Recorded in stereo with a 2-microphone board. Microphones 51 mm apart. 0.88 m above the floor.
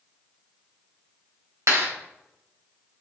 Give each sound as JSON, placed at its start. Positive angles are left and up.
{"t": 1.7, "sound": "a clap", "side_deg": -70, "distance_m": 3.0}